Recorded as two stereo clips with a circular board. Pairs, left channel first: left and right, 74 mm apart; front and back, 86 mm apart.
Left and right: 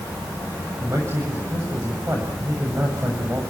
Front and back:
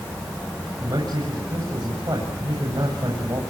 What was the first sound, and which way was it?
A man speaking, 145° right.